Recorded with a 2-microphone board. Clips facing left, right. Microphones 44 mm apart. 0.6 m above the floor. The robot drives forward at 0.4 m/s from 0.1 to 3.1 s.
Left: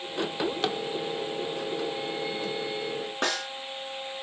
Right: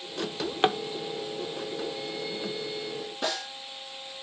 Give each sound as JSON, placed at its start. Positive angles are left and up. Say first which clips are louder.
{"t": 0.2, "sound": "a drawer", "louder": "right 3 dB", "side_deg": -40, "distance_m": 0.7}
{"t": 3.2, "sound": "a snare drum", "louder": "left 2 dB", "side_deg": 60, "distance_m": 3.0}